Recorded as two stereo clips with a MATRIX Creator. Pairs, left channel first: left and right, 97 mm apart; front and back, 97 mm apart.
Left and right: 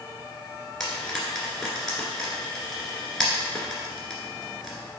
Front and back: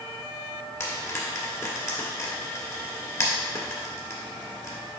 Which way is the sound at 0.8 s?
10° left.